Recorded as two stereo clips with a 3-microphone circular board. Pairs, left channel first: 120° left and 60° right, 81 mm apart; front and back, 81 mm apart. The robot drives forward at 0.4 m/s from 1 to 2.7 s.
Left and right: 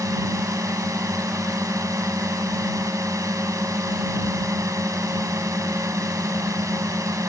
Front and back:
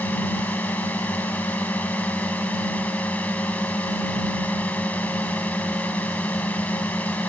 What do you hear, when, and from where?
0.0 s a drone: 60° right